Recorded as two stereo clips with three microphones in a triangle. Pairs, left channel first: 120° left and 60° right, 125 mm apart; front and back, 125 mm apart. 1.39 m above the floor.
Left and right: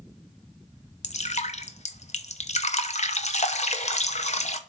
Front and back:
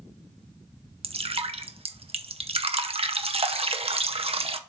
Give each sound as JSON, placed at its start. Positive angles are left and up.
{"t": 1.0, "sound": "dripping", "azimuth_deg": 140, "distance_m": 0.7}